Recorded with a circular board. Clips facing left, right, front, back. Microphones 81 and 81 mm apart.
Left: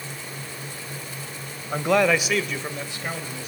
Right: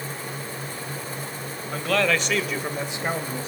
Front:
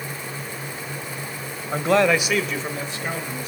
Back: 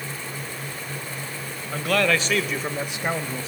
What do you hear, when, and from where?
1.7 s a man speaking: 40° left, 1.4 m; by 3.5 s 135° right, 1.7 m